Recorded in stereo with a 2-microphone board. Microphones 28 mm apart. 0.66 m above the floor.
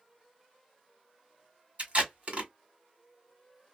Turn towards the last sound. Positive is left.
turn(degrees=-55)  # may be behind; listen again after turning